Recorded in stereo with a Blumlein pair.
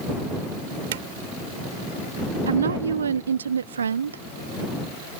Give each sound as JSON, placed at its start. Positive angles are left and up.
{"t": 0.9, "sound": "a drawer", "azimuth_deg": -60}
{"t": 2.5, "sound": "a woman speaking", "azimuth_deg": -70}